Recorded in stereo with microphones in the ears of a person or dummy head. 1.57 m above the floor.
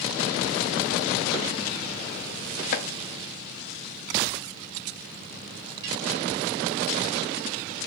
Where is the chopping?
45° left (ahead or behind), 0.5 m.